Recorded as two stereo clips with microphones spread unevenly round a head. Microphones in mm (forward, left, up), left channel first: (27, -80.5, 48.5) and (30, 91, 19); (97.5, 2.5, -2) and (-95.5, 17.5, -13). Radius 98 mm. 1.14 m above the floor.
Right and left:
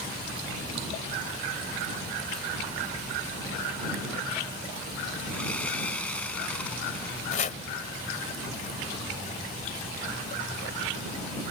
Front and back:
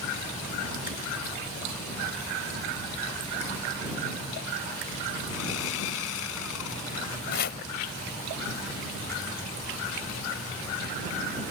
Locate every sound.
5.3 s sawing: 10° right
7.3 s chopping: 45° right